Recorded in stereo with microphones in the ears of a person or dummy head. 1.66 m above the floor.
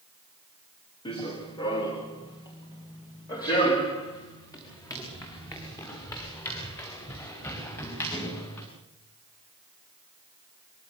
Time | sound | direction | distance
1.1 | running footsteps | 25° left (ahead or behind) | 4.5 m